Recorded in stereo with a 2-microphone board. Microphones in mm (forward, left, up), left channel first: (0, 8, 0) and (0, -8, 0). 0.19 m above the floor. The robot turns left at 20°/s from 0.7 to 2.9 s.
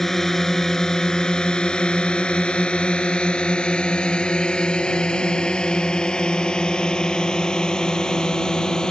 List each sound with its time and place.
0.0 s a drone: 20° left (ahead or behind); by 8.9 s 45° left (ahead or behind)